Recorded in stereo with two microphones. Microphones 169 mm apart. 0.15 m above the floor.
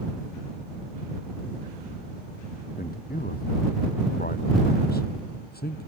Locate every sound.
2.8 s a man speaking: 60° left (ahead or behind); by 5.9 s 70° left (ahead or behind)